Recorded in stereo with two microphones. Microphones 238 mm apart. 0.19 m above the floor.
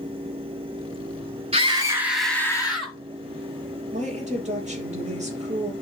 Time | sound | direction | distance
1.5 | a scream | 25° right (ahead or behind) | 1.7 m
3.9 | a woman speaking | 30° right (ahead or behind) | 4 m